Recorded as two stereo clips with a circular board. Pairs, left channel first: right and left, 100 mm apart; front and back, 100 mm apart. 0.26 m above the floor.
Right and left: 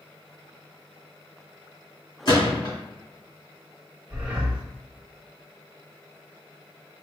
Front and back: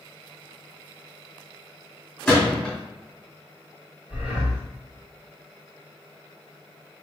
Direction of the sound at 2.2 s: 80° right.